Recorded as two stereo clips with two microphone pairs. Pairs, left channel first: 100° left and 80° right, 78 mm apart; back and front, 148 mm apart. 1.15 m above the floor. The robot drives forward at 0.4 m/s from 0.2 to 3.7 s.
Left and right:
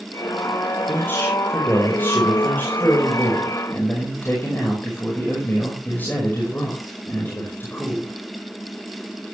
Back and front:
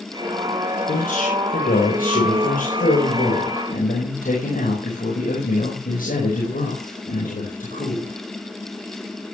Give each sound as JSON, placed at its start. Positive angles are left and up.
{"t": 0.9, "sound": "a man speaking", "azimuth_deg": 160, "distance_m": 4.0}